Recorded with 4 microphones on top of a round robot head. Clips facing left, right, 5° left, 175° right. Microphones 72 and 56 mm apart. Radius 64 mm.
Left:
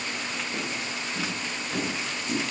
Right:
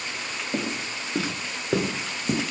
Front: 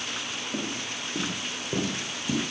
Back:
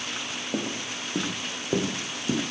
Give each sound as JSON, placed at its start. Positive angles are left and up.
{"t": 0.5, "sound": "footsteps", "azimuth_deg": -160, "distance_m": 2.0}